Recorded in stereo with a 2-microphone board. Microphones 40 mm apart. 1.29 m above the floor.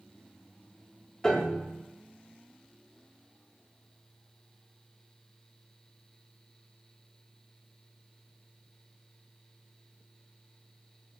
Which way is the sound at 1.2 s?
20° left (ahead or behind).